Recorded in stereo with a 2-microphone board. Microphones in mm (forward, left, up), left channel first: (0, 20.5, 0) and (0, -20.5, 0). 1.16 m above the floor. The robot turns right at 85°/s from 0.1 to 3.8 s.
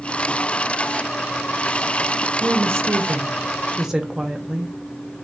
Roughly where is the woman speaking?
Behind right.